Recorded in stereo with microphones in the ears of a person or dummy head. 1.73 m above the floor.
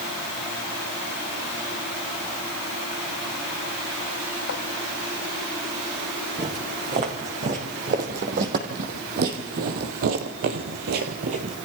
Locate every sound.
4.5 s writing: 55° left (ahead or behind), 3 m
6.4 s footsteps: 40° right (ahead or behind), 6 m; by 11.6 s 30° right (ahead or behind), 2.5 m